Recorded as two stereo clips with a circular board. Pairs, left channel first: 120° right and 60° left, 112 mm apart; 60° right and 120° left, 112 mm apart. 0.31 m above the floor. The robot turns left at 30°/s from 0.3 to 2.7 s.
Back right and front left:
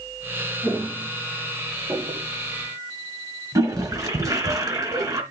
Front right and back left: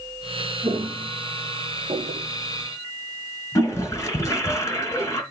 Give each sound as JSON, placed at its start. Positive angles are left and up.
{"t": 0.6, "sound": "footsteps", "azimuth_deg": 125, "distance_m": 1.7}
{"t": 3.5, "sound": "a toilet flushing", "azimuth_deg": 0, "distance_m": 1.9}